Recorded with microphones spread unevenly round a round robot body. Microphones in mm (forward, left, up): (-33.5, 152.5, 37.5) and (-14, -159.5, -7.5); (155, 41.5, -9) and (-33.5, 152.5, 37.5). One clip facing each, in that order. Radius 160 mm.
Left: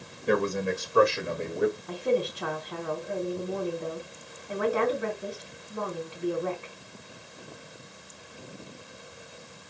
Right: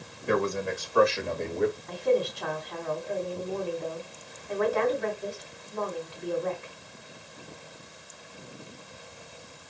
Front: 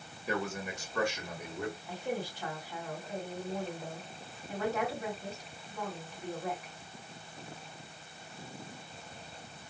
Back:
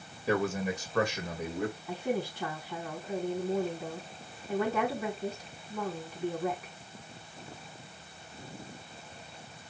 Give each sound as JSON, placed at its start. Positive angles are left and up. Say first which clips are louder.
{"t": 0.3, "sound": "a man speaking", "louder": "left 1 dB, back 6 dB", "azimuth_deg": 145, "distance_m": 2.5}
{"t": 1.9, "sound": "a woman speaking", "louder": "right 1 dB, back 4 dB", "azimuth_deg": 175, "distance_m": 4.5}